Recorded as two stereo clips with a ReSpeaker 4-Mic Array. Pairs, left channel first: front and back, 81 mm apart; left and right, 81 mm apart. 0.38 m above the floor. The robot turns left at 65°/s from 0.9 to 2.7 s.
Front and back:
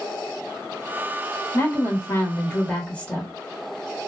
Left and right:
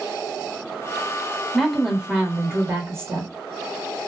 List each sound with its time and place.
1.5 s a woman speaking: 15° left, 1.1 m; by 3.3 s 65° right, 1.1 m